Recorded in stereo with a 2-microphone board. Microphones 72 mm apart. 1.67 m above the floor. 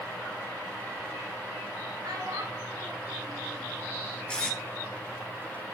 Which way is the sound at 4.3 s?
15° left (ahead or behind).